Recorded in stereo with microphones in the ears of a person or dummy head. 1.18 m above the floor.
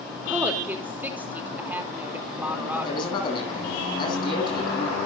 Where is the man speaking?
25° left (ahead or behind), 9.5 m.